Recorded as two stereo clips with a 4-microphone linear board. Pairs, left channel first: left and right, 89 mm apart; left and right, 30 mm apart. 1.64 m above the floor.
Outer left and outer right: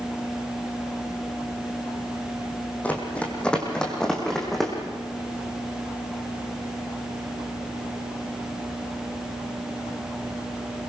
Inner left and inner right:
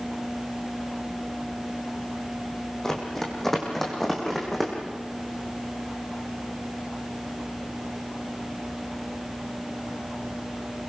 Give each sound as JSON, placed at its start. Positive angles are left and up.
{"t": 2.8, "sound": "running footsteps", "side_deg": 15, "distance_m": 4.0}